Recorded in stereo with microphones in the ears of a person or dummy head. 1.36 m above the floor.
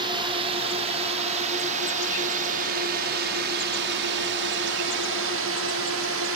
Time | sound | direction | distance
0.0 | a drone | 30° right (ahead or behind) | ?